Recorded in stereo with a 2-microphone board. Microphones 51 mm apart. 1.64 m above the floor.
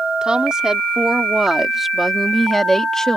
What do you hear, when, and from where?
0.2 s a woman speaking: 20° right (ahead or behind); by 3.2 s 10° left (ahead or behind)